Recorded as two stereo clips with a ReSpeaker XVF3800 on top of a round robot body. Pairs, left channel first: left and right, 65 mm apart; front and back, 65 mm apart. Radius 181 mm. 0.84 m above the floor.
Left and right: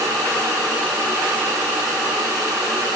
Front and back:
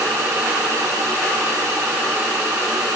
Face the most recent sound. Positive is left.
No sound to turn to.